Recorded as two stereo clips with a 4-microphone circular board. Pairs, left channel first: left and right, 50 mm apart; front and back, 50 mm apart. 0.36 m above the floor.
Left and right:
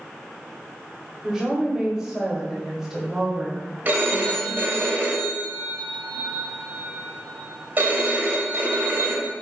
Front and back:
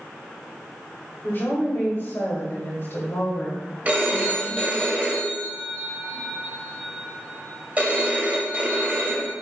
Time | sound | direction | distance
1.2 | a woman speaking | 10° right | 1.2 m
3.9 | a phone ringing | 130° right | 0.9 m